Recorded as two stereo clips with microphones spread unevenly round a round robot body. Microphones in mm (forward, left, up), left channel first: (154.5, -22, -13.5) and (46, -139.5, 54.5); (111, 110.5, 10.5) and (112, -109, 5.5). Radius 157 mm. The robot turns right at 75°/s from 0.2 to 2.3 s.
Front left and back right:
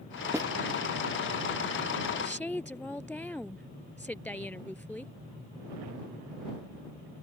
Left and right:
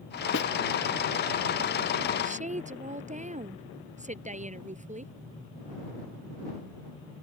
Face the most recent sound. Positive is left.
turn(degrees=-35)